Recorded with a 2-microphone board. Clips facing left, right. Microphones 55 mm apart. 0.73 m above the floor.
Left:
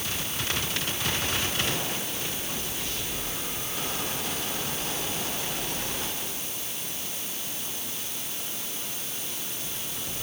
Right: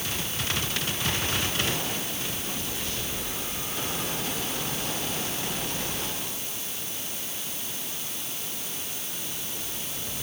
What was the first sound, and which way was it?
Only background noise.